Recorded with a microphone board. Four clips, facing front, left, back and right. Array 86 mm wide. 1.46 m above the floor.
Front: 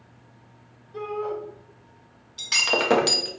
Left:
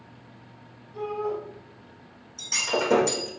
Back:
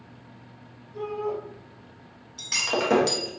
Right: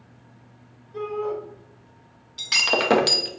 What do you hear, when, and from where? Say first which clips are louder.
0.9 s a shout: right 2 dB, even; 40° right, 2 m
2.4 s breaking glass: right 3 dB, front 2 dB; 70° right, 0.9 m